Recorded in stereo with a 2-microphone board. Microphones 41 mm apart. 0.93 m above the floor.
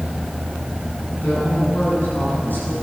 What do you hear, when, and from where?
1.1 s a woman speaking: 45° left (ahead or behind), 9.5 m